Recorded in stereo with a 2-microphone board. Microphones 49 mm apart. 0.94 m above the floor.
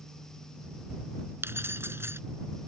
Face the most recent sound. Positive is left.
turn(degrees=-55)  # may be behind; listen again after turning